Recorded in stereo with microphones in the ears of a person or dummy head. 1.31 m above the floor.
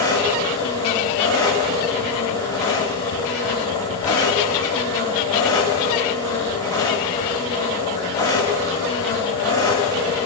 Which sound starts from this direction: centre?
An engine running, at 0.0 s.